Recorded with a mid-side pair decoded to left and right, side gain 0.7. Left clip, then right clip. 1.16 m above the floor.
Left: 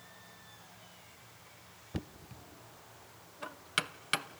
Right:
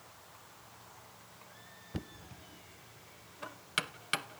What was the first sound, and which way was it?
Knocking, 5° left.